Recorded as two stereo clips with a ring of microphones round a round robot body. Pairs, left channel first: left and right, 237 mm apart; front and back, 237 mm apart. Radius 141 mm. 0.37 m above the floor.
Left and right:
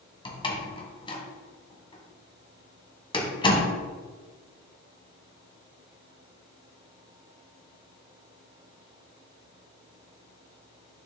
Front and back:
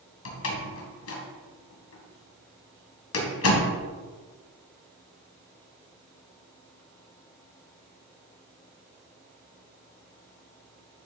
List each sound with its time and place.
0.2 s a door slam: 20° left, 1.9 m